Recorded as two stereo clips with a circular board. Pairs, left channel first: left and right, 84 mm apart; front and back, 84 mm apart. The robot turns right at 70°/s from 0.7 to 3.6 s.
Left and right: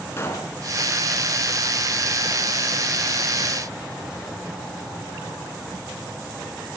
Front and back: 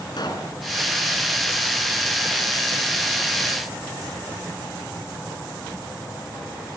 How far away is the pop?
About 4 m.